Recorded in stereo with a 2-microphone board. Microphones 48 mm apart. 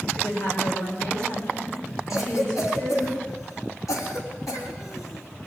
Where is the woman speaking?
65° left (ahead or behind), 8 m; by 3.1 s 75° left (ahead or behind), 12.5 m.